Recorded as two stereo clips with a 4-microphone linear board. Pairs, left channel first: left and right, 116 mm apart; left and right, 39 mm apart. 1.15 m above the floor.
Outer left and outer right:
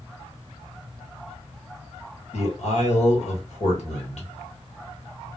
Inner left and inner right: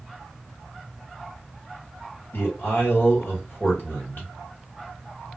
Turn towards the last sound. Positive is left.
turn(degrees=75)  # may be behind; listen again after turning